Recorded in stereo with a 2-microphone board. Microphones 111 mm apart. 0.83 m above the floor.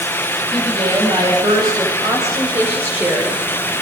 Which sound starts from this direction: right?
A woman speaking, at 0.5 s.